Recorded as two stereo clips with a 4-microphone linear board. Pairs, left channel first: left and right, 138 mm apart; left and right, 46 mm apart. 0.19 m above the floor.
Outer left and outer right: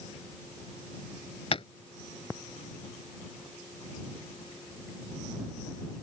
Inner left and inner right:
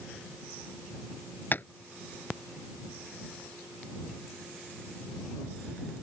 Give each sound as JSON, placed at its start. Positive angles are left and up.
{"t": 1.5, "sound": "tapping", "side_deg": 45}